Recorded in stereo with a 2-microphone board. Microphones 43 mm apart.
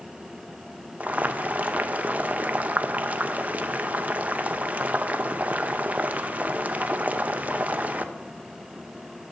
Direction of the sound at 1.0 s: 35° right (ahead or behind).